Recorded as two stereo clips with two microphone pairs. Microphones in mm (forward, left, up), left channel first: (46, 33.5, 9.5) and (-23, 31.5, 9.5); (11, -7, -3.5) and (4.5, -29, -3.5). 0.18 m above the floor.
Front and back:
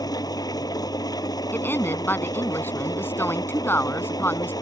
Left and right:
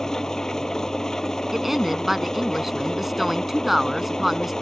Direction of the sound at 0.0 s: 10° left.